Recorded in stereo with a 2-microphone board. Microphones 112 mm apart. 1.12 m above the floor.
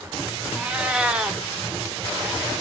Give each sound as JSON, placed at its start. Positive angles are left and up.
{"t": 0.6, "sound": "a cat meowing", "side_deg": -10, "distance_m": 0.7}